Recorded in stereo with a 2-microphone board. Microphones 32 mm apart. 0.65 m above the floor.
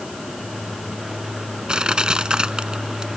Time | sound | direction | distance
1.7 | crushing | 25° right (ahead or behind) | ?